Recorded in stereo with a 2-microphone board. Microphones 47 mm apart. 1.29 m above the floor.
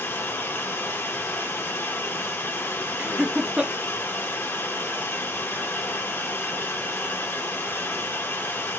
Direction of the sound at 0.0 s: 60° left (ahead or behind).